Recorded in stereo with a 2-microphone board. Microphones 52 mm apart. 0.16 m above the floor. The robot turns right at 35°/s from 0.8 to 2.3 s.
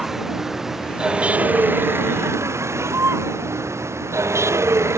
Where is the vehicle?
175° right; by 5.0 s 120° right.